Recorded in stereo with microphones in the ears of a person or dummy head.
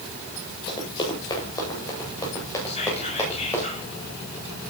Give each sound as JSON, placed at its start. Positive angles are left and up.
{"t": 0.7, "sound": "running footsteps", "side_deg": 30, "distance_m": 8.5}
{"t": 2.7, "sound": "whispering", "side_deg": 40, "distance_m": 7.0}